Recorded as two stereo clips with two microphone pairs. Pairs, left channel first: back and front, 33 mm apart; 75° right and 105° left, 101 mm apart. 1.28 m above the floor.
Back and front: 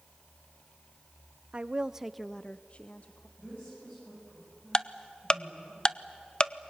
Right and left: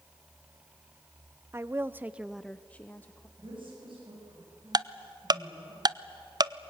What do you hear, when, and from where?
1.5 s a woman speaking: 50° left, 0.8 m; by 3.3 s 145° right, 1.2 m
3.4 s a woman speaking: 140° left, 7.5 m
4.7 s ticking: 125° left, 0.5 m